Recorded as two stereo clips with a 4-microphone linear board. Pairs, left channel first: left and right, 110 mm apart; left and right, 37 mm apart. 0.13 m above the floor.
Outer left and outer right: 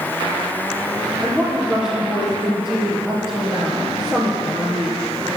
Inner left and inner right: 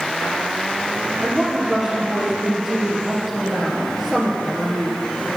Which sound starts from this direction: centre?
A woman speaking, at 1.2 s.